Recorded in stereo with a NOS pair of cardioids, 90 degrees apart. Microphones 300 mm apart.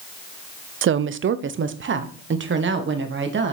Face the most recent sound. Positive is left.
turn(degrees=-40)